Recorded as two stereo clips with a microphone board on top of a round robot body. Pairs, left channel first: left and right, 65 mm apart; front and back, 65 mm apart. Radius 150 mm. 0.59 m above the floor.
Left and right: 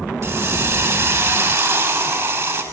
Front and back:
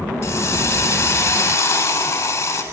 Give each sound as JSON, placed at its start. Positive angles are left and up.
{"t": 0.2, "sound": "a hiss", "azimuth_deg": -50, "distance_m": 8.5}